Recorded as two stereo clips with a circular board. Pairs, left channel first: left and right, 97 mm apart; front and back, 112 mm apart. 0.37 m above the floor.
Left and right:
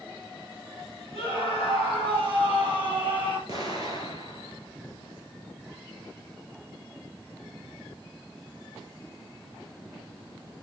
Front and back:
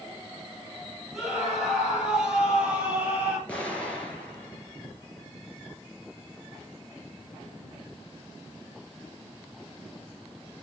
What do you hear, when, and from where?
1.1 s a scream: 90° left, 8 m; by 3.4 s 105° left, 6 m
3.5 s an explosion: 80° left, 4 m